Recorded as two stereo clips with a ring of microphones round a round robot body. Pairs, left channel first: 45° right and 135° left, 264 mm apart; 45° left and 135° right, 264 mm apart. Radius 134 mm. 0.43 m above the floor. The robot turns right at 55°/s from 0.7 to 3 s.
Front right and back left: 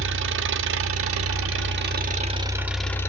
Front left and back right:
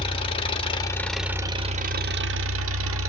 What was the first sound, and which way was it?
An engine running, 110° left.